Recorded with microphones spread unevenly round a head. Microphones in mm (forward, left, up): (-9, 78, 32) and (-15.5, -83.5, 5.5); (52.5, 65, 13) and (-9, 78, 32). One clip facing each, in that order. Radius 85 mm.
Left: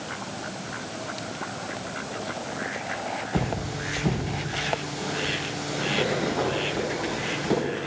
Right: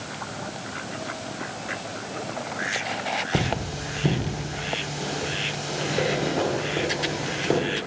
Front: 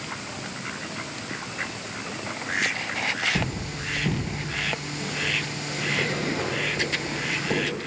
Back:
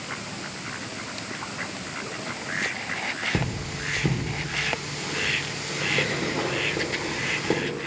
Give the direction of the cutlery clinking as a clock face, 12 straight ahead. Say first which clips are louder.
Even, even; 5 o'clock.